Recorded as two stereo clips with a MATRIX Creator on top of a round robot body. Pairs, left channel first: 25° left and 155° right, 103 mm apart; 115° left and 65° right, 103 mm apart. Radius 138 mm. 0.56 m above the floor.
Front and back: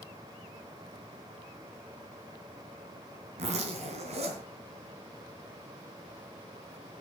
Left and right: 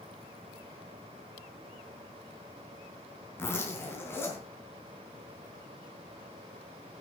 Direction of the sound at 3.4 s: Straight behind.